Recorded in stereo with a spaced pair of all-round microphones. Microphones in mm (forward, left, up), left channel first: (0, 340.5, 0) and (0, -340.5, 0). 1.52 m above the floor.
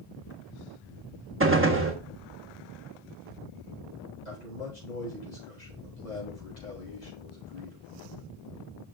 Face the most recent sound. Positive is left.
turn(degrees=85)